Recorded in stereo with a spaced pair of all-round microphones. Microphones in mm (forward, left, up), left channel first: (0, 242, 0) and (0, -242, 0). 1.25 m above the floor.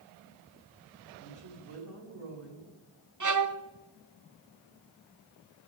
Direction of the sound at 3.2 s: 40° right (ahead or behind).